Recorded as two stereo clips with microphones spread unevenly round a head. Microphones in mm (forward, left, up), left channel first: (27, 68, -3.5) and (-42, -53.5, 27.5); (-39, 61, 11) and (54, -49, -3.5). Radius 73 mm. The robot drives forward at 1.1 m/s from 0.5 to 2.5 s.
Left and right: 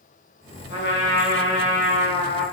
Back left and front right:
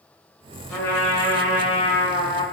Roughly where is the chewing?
I don't hear chewing.